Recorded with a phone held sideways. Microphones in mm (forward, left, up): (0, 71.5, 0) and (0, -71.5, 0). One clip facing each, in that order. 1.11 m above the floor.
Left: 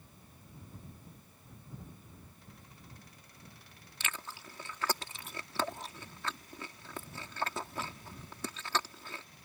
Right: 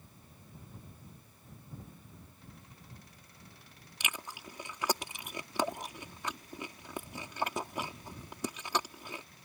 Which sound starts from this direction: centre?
Chewing, at 4.0 s.